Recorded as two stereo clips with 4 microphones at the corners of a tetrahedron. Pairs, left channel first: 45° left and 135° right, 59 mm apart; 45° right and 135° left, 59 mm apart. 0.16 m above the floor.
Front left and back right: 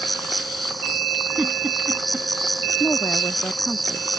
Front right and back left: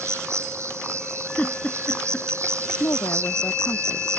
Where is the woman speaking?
20° right.